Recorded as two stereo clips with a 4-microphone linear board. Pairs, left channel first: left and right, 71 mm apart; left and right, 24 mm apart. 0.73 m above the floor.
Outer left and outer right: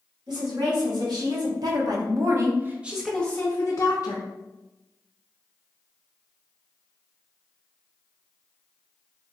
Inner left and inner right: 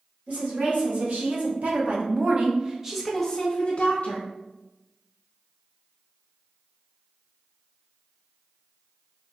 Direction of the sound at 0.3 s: 75° right (ahead or behind).